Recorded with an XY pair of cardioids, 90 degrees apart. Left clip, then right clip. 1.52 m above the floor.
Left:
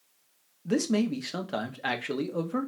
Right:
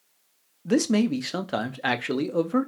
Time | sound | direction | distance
0.7 | a man speaking | 35° right | 0.5 m